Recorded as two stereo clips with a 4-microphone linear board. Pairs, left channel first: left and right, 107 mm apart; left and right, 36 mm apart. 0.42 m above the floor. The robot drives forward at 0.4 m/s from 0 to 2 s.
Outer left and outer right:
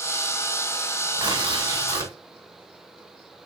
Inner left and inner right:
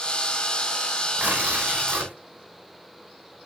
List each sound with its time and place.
1.2 s tearing paper: 45° right (ahead or behind), 2.5 m; by 2.1 s 40° right (ahead or behind), 2.5 m